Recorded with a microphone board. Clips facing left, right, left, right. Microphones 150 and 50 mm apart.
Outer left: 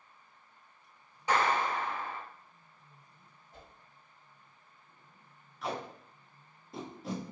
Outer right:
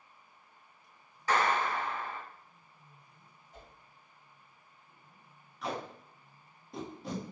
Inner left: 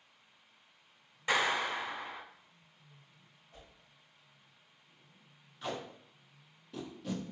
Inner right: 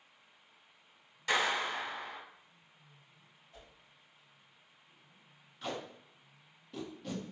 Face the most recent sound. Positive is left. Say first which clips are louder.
# even, inner left 1 dB
turn(degrees=0)  # may be behind; listen again after turning